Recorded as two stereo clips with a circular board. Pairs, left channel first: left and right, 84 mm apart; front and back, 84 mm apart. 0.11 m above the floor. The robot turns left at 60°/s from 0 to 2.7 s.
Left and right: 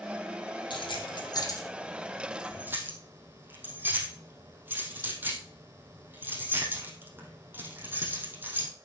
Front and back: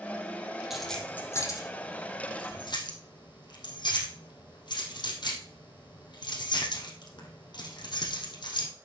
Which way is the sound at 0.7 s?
95° left.